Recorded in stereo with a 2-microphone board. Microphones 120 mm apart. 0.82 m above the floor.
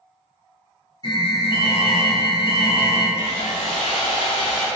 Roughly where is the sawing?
Left.